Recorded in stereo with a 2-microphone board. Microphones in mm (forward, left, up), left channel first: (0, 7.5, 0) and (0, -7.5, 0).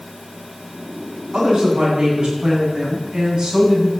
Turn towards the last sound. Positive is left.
turn(degrees=-60)  # may be behind; listen again after turning